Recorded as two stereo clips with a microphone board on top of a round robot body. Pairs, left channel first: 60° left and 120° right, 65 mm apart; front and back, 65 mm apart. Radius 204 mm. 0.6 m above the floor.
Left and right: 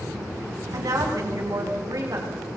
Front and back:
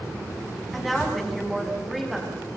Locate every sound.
0.7 s a woman speaking: 90° right, 8 m